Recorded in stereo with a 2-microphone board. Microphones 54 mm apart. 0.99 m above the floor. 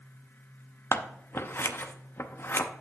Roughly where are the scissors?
Left.